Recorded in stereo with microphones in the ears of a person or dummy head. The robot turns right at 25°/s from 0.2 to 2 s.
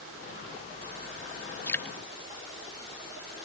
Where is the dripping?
15° left (ahead or behind); by 1.9 s 5° left (ahead or behind).